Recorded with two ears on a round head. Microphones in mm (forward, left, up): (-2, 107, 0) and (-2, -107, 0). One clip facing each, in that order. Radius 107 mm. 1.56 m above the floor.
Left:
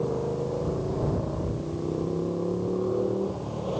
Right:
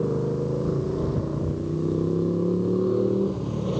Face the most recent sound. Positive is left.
turn(degrees=-30)  # may be behind; listen again after turning